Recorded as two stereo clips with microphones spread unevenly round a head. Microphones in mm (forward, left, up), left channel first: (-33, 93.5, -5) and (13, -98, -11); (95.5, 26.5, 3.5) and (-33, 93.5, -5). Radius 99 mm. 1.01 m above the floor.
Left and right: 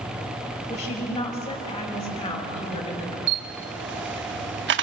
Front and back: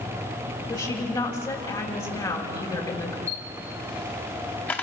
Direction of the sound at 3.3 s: 110° right.